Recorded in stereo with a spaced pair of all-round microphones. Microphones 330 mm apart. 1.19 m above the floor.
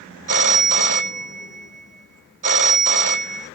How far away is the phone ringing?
About 0.5 m.